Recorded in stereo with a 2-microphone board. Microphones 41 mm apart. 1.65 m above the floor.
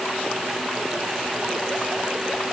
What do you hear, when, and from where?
Only background noise.